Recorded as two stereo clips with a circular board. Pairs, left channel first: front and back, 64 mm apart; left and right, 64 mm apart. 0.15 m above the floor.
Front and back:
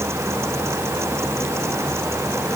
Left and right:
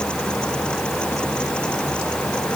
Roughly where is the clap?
No clap in this recording.